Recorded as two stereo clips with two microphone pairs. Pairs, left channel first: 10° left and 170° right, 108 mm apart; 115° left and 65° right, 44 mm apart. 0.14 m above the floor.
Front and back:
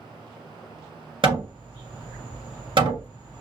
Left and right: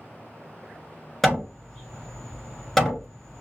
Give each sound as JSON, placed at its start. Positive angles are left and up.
{"t": 1.2, "sound": "hammering", "azimuth_deg": -160, "distance_m": 1.7}